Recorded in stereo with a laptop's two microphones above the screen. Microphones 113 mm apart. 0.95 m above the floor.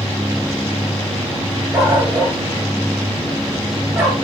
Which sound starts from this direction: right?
A dog barking, at 1.7 s.